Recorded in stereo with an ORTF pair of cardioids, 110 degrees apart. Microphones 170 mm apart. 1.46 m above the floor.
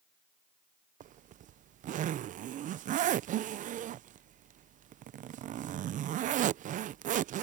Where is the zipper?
50° right.